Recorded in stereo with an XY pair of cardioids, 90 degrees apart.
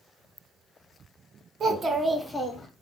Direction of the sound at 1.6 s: 55° right.